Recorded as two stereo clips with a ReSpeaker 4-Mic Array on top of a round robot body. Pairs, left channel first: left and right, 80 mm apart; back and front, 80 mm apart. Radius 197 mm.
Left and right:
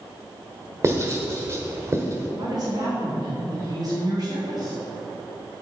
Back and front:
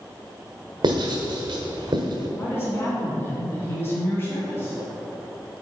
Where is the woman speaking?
120° right, 2.5 m.